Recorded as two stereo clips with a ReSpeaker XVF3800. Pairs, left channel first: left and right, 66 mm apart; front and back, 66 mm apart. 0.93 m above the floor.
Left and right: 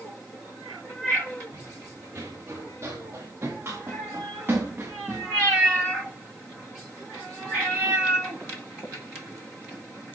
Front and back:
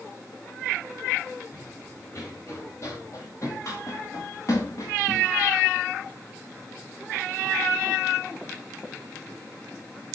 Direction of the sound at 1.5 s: 45° right.